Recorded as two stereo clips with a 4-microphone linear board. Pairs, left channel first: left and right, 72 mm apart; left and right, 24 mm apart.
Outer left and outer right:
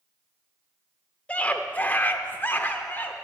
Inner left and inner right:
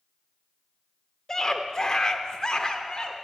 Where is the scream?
20° left (ahead or behind), 0.9 m; by 3.1 s 25° left (ahead or behind), 1.0 m.